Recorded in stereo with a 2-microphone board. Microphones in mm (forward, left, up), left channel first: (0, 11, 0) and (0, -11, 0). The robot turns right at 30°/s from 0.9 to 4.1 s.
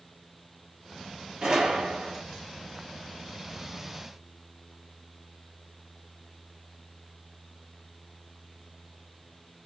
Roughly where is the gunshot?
Right.